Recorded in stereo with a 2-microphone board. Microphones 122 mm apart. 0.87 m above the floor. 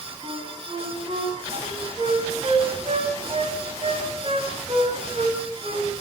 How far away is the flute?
About 8.5 m.